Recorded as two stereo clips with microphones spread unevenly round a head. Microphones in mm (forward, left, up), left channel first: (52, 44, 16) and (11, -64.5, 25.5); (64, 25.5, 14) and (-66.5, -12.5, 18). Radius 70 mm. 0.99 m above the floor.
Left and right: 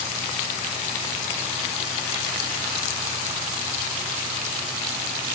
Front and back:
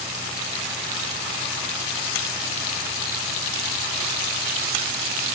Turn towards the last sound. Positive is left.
No sound to turn to.